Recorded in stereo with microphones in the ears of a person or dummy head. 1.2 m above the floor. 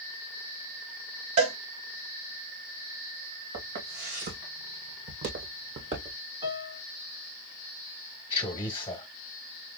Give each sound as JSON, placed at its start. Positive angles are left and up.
{"t": 1.4, "sound": "a cowbell", "side_deg": -30, "distance_m": 0.7}
{"t": 3.5, "sound": "footsteps", "side_deg": -65, "distance_m": 3.0}
{"t": 6.4, "sound": "a piano", "side_deg": -30, "distance_m": 1.4}
{"t": 8.3, "sound": "a man speaking", "side_deg": 20, "distance_m": 1.2}